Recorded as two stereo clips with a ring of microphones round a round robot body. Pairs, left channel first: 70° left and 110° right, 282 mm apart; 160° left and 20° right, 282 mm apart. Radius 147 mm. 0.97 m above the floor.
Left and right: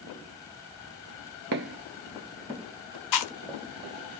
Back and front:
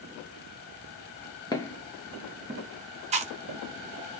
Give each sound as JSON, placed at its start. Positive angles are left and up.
{"t": 1.5, "sound": "footsteps", "azimuth_deg": -130, "distance_m": 1.1}
{"t": 3.1, "sound": "chewing", "azimuth_deg": 45, "distance_m": 0.7}